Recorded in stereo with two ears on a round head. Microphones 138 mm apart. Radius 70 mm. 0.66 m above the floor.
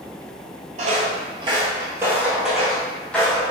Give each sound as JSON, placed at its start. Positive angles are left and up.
{"t": 0.8, "sound": "footsteps", "side_deg": -50, "distance_m": 0.9}